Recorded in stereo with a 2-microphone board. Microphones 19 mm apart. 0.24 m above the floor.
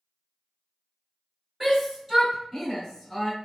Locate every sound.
1.6 s a shout: 20° right (ahead or behind), 1.6 m; by 3.3 s 20° left (ahead or behind), 1.6 m